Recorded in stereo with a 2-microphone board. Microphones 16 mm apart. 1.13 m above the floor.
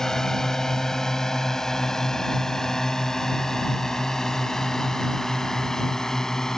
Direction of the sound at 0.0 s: 40° left (ahead or behind).